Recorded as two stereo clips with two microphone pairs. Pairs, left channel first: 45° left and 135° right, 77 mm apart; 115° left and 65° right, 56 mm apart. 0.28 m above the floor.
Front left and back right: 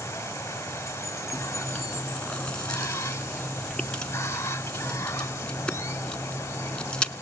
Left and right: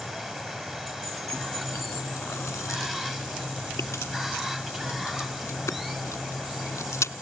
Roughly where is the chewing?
Behind left.